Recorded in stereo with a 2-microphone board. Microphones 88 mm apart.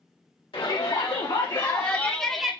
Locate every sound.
0.5 s a shout: 80° left, 1.7 m; by 2.5 s 10° right (ahead or behind), 0.9 m